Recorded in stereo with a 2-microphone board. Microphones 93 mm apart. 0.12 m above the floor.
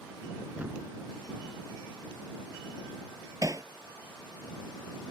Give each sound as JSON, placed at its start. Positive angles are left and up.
{"t": 0.6, "sound": "a thud", "side_deg": -15}
{"t": 3.4, "sound": "hammering", "side_deg": -35}